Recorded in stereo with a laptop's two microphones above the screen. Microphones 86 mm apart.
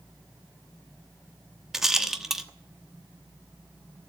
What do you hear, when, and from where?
1.7 s a rattle: 5° right (ahead or behind), 1.1 m